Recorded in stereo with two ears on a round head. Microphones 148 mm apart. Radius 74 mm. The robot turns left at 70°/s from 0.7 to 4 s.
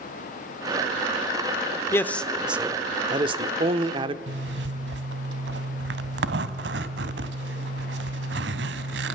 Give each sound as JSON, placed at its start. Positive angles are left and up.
{"t": 1.9, "sound": "a man speaking", "azimuth_deg": 30, "distance_m": 0.9}
{"t": 4.3, "sound": "a zipper", "side_deg": -70, "distance_m": 1.1}